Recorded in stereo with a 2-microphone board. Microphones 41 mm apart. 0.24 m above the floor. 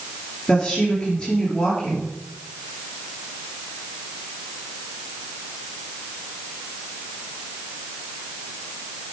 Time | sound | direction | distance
0.5 | a woman speaking | 30° left (ahead or behind) | 4.5 m